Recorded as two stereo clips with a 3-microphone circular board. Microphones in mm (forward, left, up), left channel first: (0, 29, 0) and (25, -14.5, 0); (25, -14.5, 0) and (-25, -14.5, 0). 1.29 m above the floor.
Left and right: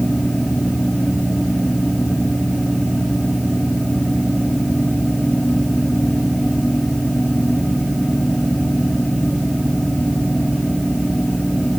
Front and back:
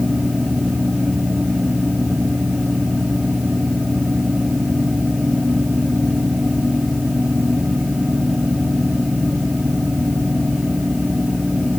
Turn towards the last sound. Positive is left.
No sound to turn to.